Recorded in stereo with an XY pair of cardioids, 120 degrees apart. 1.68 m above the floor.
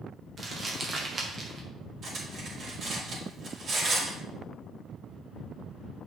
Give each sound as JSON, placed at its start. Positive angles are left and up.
{"t": 0.4, "sound": "crumpling", "azimuth_deg": -30, "distance_m": 1.9}
{"t": 2.0, "sound": "cutlery clinking", "azimuth_deg": -45, "distance_m": 4.0}